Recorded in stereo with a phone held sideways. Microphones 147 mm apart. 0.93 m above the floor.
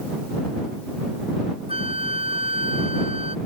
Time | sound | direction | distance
1.7 | a flute | 40° right (ahead or behind) | ?